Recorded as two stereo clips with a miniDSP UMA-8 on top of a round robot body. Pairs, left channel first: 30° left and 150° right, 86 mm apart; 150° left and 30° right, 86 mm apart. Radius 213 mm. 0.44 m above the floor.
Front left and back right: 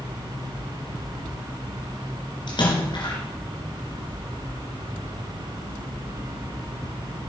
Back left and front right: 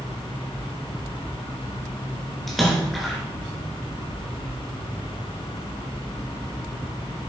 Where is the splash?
60° left, 3 m.